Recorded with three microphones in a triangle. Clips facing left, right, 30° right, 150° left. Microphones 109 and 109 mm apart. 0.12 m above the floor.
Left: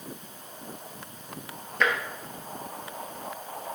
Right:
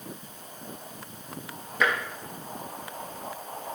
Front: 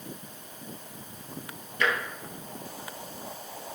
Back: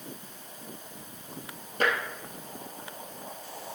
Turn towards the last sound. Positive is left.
turn(degrees=-175)